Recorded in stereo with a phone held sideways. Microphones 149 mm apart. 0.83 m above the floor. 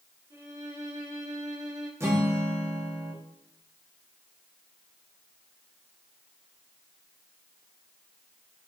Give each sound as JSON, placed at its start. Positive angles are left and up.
{"t": 0.3, "sound": "a violin", "side_deg": -30, "distance_m": 5.0}
{"t": 2.0, "sound": "a guitar", "side_deg": -20, "distance_m": 1.7}